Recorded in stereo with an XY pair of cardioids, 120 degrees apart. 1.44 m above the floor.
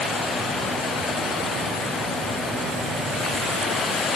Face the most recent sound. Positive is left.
No sound to turn to.